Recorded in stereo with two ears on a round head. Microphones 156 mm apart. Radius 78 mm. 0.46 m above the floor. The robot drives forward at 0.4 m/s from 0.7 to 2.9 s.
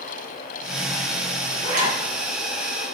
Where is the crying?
I don't hear crying.